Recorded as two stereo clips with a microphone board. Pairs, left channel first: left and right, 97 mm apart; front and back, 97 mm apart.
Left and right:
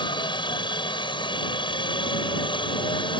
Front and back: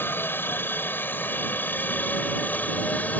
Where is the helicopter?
65° left; by 3.2 s 70° left.